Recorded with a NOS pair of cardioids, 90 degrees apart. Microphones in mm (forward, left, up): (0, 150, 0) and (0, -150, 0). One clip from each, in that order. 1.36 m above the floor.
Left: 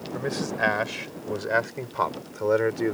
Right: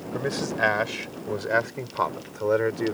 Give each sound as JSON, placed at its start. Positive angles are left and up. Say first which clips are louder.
{"t": 0.1, "sound": "a man speaking", "louder": "right 1 dB", "azimuth_deg": -5}